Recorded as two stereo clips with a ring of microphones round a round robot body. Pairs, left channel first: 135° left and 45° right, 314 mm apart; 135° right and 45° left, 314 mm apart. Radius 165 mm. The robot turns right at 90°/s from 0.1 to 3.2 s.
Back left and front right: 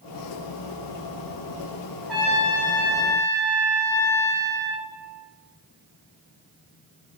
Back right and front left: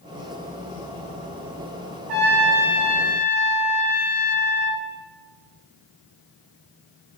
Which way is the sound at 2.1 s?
45° left.